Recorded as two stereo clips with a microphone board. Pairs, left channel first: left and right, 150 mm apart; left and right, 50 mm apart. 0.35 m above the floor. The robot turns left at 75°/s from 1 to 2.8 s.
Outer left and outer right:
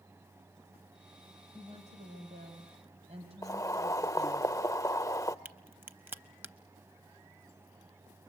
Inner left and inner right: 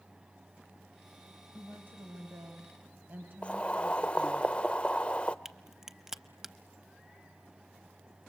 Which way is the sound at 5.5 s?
15° right (ahead or behind).